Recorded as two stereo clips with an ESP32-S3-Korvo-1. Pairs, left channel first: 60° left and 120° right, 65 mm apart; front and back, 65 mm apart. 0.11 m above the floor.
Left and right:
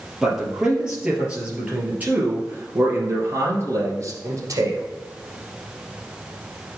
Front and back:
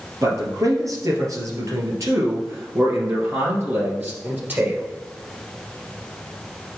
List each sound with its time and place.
0.2 s a man speaking: 155° left, 3 m; by 4.8 s 125° right, 2.5 m